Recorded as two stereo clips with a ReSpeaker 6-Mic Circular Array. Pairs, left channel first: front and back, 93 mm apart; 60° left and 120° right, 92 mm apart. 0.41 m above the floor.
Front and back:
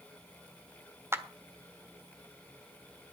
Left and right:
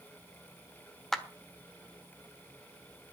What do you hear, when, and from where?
1.1 s a clap: 145° left, 1.3 m